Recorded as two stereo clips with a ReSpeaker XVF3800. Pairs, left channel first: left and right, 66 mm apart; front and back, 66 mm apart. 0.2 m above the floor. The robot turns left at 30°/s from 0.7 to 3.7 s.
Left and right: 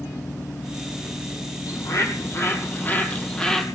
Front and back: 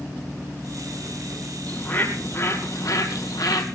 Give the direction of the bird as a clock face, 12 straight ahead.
10 o'clock.